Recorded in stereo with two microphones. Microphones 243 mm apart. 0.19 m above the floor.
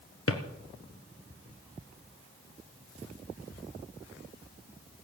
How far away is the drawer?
About 1.6 m.